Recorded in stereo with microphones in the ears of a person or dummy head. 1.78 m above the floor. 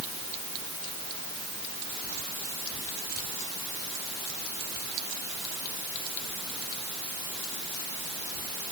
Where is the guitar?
No guitar in this recording.